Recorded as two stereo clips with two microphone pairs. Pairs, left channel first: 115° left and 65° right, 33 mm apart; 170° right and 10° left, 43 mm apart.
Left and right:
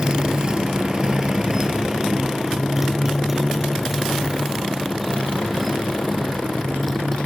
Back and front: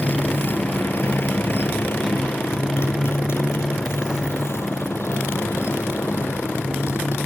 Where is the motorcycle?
125° right; by 7.3 s 155° right.